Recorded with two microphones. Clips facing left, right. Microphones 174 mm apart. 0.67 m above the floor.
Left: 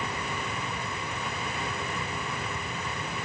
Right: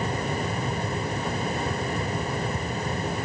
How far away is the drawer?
No drawer in this recording.